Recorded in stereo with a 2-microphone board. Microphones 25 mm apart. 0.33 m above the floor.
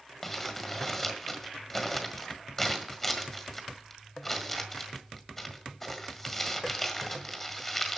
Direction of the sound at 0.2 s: 10° left (ahead or behind).